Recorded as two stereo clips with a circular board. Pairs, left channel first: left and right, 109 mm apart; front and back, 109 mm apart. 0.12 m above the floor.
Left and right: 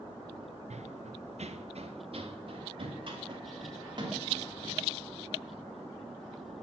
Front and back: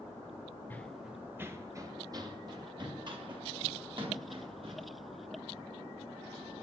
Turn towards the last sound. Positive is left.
turn(degrees=-140)